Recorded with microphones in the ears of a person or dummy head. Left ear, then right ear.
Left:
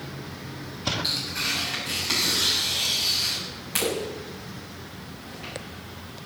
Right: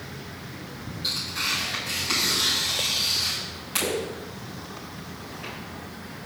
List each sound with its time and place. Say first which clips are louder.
1.0 s tearing paper: right 4 dB; 30° left (ahead or behind), 7 m